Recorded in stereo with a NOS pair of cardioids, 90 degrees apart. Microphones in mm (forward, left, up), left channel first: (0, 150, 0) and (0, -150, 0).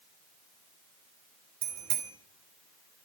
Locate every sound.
1.6 s a bicycle bell: 70° right, 4.5 m